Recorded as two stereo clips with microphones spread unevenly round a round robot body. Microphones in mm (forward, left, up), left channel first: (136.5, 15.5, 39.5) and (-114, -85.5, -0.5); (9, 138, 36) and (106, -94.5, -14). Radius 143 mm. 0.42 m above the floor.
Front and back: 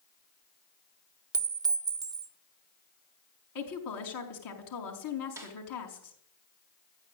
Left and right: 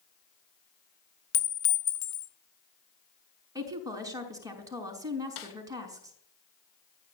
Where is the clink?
140° left, 1.1 m.